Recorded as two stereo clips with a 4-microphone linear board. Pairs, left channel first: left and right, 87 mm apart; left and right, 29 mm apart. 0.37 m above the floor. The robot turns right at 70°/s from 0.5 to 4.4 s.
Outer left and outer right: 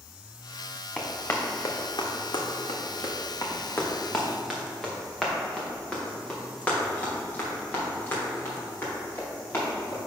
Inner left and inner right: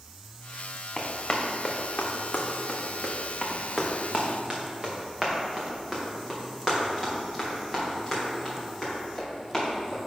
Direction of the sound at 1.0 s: 5° left (ahead or behind).